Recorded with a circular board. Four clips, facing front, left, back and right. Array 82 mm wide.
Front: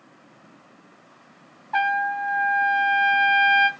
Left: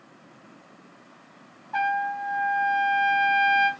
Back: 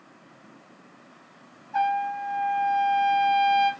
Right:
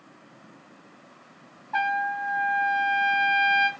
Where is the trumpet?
5° right, 0.5 m.